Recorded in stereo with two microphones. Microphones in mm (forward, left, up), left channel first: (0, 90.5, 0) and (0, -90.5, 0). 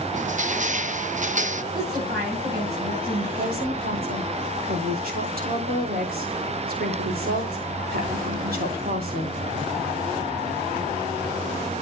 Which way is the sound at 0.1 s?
45° right (ahead or behind).